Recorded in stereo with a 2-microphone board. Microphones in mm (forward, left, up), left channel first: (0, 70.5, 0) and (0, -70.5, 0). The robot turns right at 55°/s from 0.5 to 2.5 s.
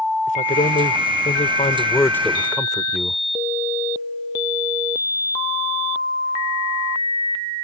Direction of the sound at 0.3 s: 75° left.